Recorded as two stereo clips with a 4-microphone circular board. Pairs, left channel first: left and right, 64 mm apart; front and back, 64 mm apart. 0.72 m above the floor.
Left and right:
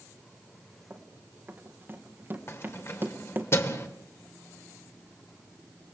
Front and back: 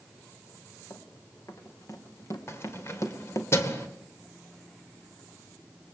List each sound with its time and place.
0.9 s running footsteps: 35° right, 3.5 m
2.5 s keys jangling: 45° left, 2 m